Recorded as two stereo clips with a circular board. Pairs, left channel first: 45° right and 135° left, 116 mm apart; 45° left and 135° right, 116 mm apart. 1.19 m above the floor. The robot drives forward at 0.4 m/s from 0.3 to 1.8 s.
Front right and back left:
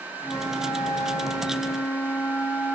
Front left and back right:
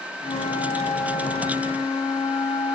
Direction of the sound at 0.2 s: 20° left.